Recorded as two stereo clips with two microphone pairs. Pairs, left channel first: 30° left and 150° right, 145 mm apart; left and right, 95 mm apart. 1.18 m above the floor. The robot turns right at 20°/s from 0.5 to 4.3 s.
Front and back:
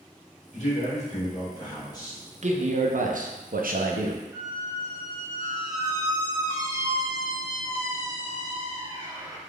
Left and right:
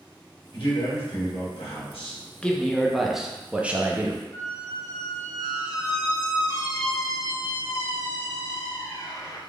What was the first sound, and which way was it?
A man speaking, 65° left.